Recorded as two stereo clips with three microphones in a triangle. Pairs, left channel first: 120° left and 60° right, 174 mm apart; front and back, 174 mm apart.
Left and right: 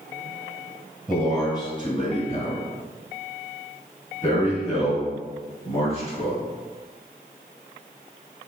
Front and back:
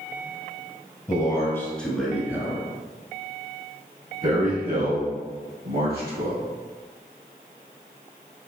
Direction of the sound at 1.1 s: 55° left.